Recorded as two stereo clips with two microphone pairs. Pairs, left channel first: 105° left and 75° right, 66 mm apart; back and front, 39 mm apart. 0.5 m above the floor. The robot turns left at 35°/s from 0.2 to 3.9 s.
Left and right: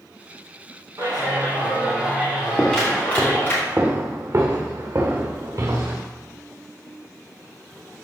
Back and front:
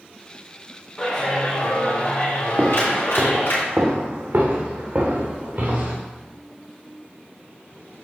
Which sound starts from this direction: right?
A clap, at 1.0 s.